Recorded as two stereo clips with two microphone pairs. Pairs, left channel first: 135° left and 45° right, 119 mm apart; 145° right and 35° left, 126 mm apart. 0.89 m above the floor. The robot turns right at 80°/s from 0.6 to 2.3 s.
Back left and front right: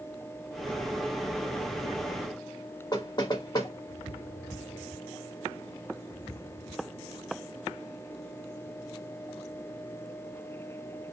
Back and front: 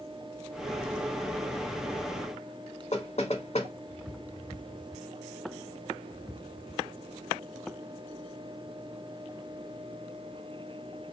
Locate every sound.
2.9 s knocking: 175° right, 1.2 m